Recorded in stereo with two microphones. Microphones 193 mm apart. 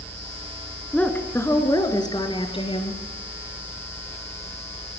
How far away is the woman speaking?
About 3.5 m.